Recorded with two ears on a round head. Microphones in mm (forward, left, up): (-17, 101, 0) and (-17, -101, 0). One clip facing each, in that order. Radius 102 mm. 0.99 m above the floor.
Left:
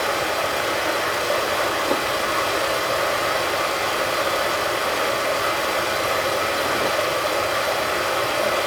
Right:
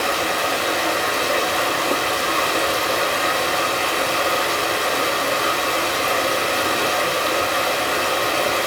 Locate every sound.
0.0 s running water: 45° right (ahead or behind), 5 m